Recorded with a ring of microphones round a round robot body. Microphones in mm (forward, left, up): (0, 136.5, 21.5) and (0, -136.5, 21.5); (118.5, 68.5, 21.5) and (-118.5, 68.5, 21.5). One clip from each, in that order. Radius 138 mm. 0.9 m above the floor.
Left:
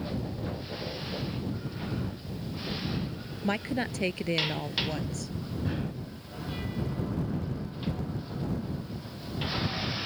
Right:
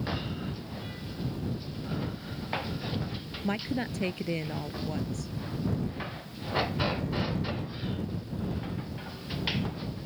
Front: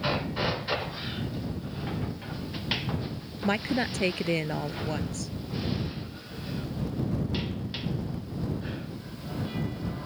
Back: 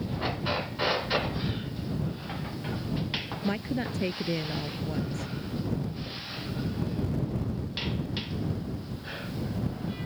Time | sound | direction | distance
3.4 | a woman speaking | 20° left | ?